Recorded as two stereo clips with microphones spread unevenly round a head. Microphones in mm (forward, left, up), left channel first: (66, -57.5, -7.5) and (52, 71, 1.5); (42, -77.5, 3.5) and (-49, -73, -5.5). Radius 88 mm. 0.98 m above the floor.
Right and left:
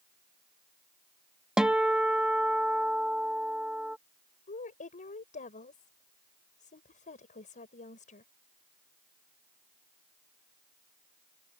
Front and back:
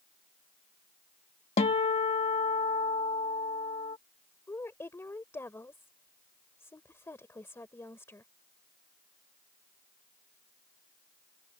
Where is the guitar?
10° left.